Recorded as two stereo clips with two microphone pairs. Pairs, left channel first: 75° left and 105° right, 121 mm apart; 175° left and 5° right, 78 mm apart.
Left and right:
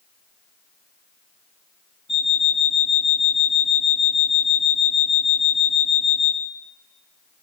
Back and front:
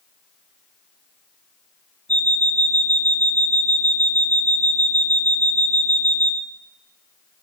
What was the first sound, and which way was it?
An alarm clock, 115° left.